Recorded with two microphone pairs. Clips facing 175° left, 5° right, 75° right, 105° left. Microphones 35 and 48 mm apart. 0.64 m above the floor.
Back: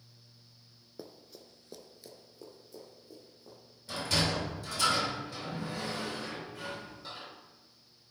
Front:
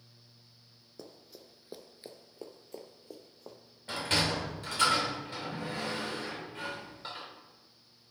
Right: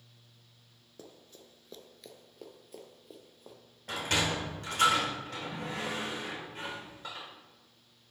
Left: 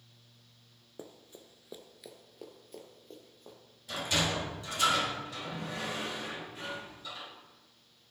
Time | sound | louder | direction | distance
1.0 | running footsteps | back 2 dB, left 3 dB | 125° left | 0.6 m
3.9 | a sliding door | front 1 dB, right 1 dB | 50° right | 2.5 m